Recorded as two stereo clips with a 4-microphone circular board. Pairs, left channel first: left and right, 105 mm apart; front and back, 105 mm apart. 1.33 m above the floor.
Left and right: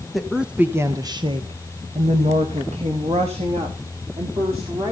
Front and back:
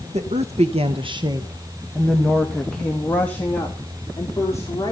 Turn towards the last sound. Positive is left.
turn(degrees=-65)